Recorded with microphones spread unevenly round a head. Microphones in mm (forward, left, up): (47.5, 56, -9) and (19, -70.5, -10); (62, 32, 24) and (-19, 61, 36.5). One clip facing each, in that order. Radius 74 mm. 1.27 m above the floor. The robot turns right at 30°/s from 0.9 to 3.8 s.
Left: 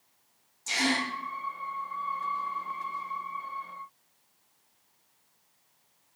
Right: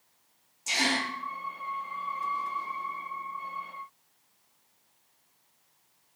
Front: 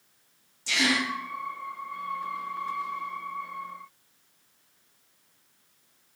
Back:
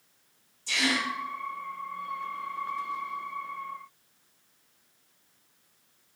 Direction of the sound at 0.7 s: 30° right.